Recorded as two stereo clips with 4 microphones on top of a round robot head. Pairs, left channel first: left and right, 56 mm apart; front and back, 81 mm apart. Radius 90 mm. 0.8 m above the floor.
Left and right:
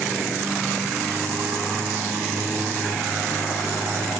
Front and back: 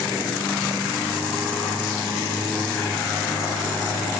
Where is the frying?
No frying in this recording.